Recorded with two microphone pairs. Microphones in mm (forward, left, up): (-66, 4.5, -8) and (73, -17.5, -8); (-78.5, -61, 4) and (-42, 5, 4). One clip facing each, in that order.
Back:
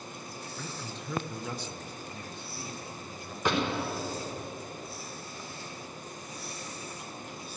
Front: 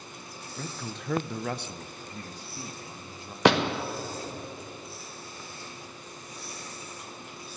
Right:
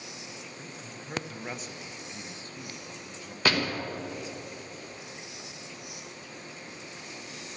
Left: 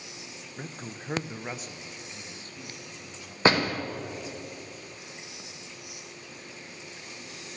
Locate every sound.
0.6 s a man speaking: 35° left, 0.6 m; by 3.4 s 75° right, 1.5 m
3.5 s a door slam: 5° right, 0.9 m